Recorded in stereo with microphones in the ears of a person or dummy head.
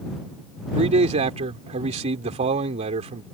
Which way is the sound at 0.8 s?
35° right (ahead or behind).